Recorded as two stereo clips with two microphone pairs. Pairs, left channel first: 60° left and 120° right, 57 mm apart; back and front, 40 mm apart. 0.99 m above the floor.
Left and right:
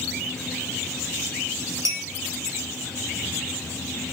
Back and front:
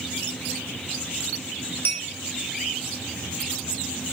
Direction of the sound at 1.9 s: 145° right.